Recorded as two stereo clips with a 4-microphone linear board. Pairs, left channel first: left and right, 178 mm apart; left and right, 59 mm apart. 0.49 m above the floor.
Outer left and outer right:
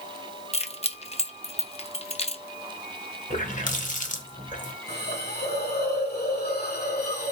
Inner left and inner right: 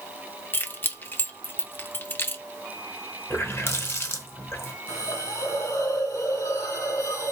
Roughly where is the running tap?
Left.